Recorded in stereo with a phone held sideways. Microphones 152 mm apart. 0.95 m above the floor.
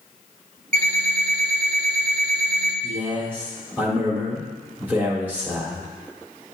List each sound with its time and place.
0.7 s an alarm clock: 60° right (ahead or behind), 2.5 m
2.8 s a man speaking: 10° right (ahead or behind), 2 m